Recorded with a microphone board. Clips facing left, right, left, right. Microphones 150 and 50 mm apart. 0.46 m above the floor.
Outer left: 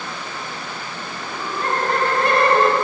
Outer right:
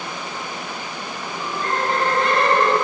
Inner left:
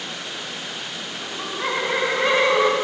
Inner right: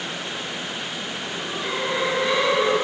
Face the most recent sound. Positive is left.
turn(degrees=60)  # may be behind; listen again after turning